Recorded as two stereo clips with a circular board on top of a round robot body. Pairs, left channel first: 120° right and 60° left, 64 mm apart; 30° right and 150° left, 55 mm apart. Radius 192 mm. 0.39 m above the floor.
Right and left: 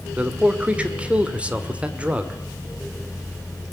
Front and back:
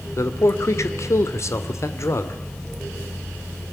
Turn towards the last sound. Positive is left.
turn(degrees=-10)